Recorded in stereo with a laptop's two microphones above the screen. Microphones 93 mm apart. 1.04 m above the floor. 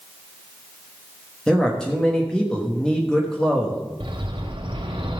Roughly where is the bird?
Right.